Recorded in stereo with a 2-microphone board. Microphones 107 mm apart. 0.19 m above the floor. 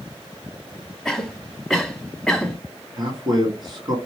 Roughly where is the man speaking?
Right.